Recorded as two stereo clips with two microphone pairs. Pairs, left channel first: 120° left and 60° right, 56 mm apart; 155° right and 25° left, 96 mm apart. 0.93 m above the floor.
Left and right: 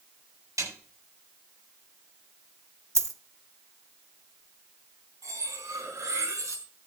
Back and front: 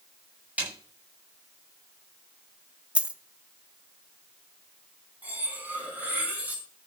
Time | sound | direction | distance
0.6 | a snare drum | 50° right | 8 m
3.0 | a dropped coin | 50° right | 1.0 m
5.2 | cutlery clinking | 45° right | 4.5 m